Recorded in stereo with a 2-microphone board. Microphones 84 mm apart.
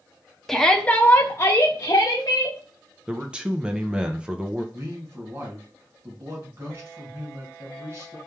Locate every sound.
0.5 s a shout: centre (ahead or behind), 0.7 m; by 2.6 s 45° left (ahead or behind), 1.3 m
3.1 s a man speaking: 10° right (ahead or behind), 0.8 m
4.7 s a man speaking: 30° right (ahead or behind), 2 m